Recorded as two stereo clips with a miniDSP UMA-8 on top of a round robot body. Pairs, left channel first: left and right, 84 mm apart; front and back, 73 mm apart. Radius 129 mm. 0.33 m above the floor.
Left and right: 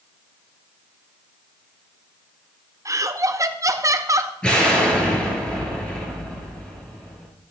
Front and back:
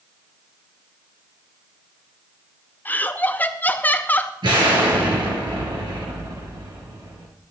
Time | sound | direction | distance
2.9 | laughter | 55° right | 1.1 m
4.4 | an explosion | 170° left | 3.5 m